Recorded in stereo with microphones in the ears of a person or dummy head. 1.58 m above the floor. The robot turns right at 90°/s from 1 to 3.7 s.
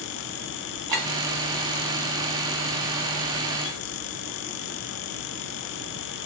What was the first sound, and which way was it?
A clink, 20° right (ahead or behind).